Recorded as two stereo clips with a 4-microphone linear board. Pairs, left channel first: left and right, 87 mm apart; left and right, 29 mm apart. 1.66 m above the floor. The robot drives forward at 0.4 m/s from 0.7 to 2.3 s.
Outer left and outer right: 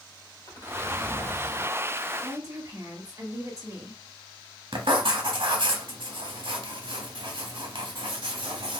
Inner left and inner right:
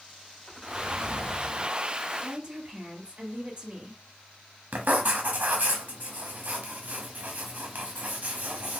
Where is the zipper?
60° left (ahead or behind), 1.9 m; by 1.8 s 65° left (ahead or behind), 1.9 m.